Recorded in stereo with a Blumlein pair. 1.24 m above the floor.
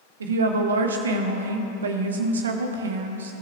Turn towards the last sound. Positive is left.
turn(degrees=-65)